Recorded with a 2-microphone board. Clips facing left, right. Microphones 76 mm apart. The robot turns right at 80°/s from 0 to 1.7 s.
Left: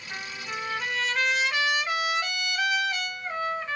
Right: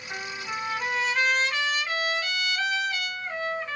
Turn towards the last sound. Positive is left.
turn(degrees=15)  # may be behind; listen again after turning